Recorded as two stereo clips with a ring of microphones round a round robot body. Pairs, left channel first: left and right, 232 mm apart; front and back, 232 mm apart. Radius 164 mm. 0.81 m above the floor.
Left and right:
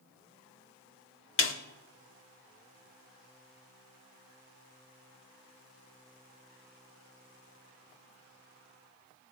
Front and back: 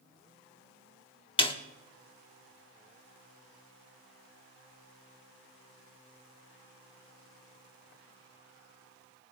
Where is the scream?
No scream in this recording.